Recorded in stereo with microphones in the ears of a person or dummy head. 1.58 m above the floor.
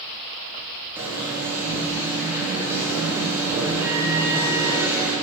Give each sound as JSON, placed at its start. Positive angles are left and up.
{"t": 0.9, "sound": "an alarm", "side_deg": -10, "distance_m": 5.0}